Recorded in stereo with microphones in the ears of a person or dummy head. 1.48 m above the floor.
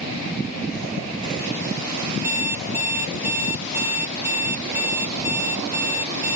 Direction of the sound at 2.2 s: 10° right (ahead or behind).